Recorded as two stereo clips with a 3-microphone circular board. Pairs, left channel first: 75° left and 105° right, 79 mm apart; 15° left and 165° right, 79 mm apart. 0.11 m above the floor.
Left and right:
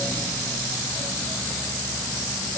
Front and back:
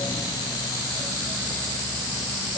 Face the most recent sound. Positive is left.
No sound to turn to.